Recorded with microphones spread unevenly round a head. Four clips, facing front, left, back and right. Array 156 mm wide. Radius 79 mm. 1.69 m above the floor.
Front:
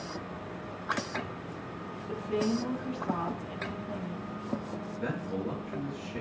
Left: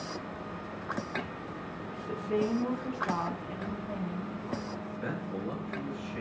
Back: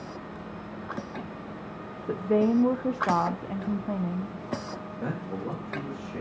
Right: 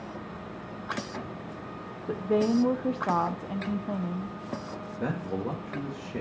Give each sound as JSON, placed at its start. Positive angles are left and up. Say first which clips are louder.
{"t": 2.1, "sound": "a woman speaking", "louder": "right 5 dB, back 7 dB", "azimuth_deg": -145, "distance_m": 0.8}
{"t": 5.0, "sound": "a man speaking", "louder": "right 6 dB, back 1 dB", "azimuth_deg": -115, "distance_m": 2.5}